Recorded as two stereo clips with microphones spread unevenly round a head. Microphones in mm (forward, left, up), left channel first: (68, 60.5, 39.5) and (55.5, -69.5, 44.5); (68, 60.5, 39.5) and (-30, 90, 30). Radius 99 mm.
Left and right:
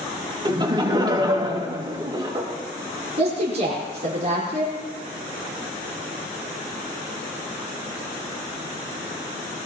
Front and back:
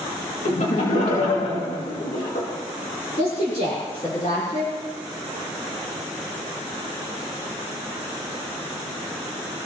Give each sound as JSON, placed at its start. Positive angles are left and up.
{"t": 0.5, "sound": "laughter", "azimuth_deg": -40, "distance_m": 2.5}
{"t": 3.2, "sound": "a woman speaking", "azimuth_deg": -65, "distance_m": 5.0}